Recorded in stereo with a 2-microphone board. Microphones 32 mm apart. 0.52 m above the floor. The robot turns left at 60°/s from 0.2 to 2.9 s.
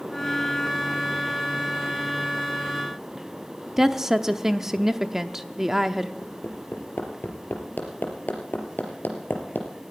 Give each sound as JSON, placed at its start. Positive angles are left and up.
{"t": 3.8, "sound": "a woman speaking", "side_deg": -15, "distance_m": 0.8}
{"t": 6.2, "sound": "hammering", "side_deg": 85, "distance_m": 3.0}